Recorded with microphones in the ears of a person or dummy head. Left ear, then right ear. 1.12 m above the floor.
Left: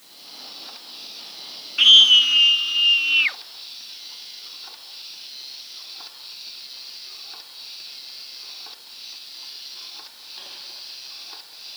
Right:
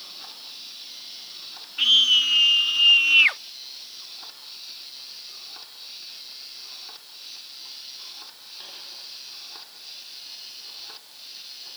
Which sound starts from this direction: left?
A scream, at 1.8 s.